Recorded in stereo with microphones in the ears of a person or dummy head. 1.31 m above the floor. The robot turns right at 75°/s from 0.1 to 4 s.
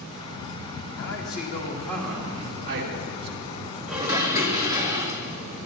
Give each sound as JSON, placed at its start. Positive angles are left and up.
{"t": 1.0, "sound": "a man speaking", "azimuth_deg": 100, "distance_m": 2.5}
{"t": 3.9, "sound": "dishes clattering", "side_deg": 0, "distance_m": 1.6}